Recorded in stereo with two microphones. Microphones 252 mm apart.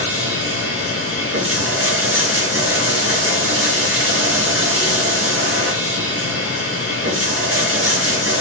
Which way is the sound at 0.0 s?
55° right (ahead or behind).